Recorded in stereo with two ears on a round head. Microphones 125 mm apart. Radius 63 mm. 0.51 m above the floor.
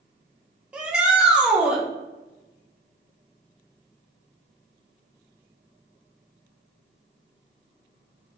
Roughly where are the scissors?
I don't hear scissors.